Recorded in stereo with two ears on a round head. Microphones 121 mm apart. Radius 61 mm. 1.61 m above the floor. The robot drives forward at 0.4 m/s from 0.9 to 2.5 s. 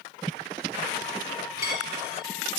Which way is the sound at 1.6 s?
25° right (ahead or behind).